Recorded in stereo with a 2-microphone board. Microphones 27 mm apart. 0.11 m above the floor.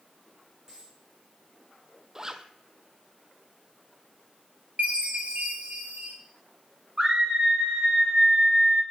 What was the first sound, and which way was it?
A dropped coin, 25° right (ahead or behind).